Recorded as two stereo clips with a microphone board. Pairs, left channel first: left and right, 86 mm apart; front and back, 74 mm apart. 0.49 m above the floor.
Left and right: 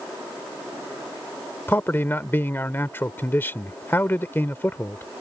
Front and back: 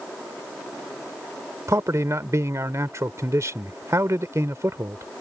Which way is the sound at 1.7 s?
150° left.